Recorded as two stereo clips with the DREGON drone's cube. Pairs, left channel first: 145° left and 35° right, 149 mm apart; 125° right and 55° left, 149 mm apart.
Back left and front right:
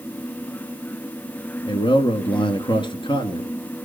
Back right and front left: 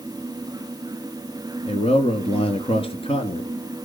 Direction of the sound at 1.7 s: 165° right.